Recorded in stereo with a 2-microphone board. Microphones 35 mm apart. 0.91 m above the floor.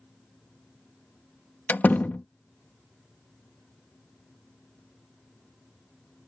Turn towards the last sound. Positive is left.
turn(degrees=65)  # may be behind; listen again after turning